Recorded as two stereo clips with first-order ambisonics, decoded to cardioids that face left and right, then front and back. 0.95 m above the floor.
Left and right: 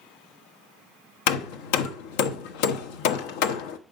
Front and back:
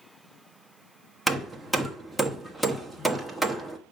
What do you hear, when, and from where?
1.3 s hammering: 90° left, 1.1 m